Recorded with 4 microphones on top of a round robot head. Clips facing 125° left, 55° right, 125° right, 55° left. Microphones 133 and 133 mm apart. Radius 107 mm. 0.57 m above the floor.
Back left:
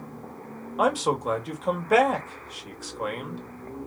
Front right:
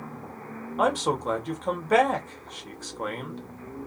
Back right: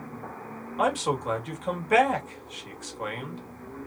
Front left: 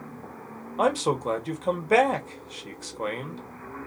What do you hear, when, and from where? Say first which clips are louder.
0.8 s a man speaking: back left 1 dB, front left 2 dB; 50° left, 1.4 m